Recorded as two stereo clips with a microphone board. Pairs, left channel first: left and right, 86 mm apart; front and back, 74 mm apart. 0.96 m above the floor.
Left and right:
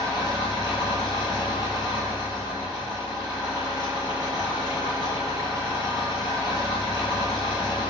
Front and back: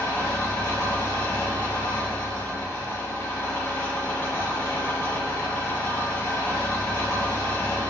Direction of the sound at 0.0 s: 55° left.